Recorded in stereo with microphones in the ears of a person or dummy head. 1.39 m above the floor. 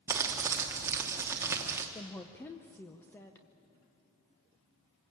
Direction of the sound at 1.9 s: 10° left (ahead or behind).